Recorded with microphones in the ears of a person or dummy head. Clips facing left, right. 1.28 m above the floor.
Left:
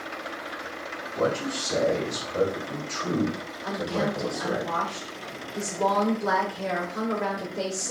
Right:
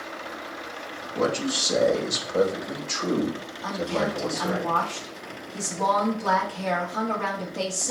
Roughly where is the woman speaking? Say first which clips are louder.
Right 1 dB; right.